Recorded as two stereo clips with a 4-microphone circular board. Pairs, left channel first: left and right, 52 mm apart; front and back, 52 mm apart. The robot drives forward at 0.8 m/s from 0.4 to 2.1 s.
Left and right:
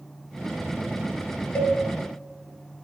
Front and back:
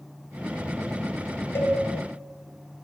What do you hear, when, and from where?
1.6 s a cowbell: 30° left, 0.7 m; by 1.8 s 40° left, 0.6 m